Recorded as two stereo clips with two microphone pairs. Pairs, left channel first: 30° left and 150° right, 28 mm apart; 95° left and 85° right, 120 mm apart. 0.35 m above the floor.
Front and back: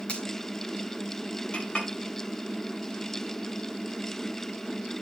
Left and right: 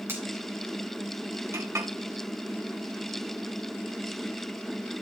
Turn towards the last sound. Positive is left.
turn(degrees=-20)